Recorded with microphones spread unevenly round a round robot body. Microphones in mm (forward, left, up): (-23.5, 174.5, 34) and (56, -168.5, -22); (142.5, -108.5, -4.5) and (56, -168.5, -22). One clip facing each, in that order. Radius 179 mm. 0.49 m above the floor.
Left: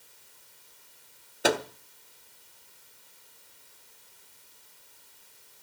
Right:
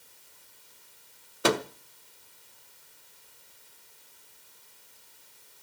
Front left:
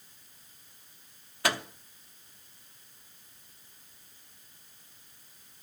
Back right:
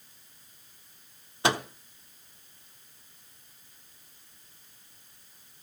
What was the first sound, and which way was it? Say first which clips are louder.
A microwave: right 1 dB, back right 4 dB; 140° right.